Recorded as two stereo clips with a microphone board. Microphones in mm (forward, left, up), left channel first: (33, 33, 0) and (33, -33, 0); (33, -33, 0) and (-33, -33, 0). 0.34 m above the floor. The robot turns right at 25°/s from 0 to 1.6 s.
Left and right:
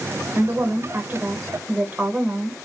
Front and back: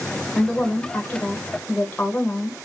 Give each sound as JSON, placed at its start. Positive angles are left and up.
{"t": 0.3, "sound": "a woman speaking", "azimuth_deg": -75, "distance_m": 1.0}